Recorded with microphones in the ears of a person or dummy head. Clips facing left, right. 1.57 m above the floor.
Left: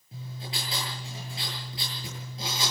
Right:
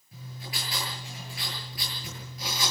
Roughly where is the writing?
Left.